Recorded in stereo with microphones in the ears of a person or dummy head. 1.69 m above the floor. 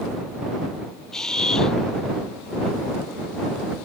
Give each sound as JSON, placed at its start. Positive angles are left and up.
{"t": 1.1, "sound": "a camera shutter", "side_deg": 5}